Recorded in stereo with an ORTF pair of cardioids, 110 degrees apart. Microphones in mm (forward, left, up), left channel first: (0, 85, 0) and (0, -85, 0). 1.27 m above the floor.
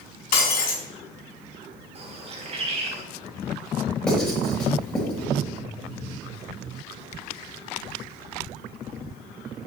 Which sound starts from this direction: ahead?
Writing, at 4.1 s.